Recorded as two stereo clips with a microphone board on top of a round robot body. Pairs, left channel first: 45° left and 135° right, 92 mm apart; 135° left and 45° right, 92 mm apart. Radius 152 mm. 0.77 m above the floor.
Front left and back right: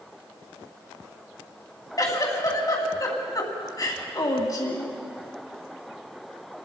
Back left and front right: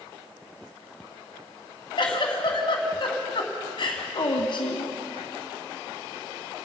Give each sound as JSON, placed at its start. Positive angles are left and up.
{"t": 2.0, "sound": "a giggle", "azimuth_deg": 95, "distance_m": 2.5}